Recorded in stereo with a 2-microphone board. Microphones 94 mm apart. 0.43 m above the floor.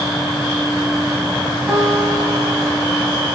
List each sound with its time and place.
1.7 s a guitar: 20° right (ahead or behind), 3.5 m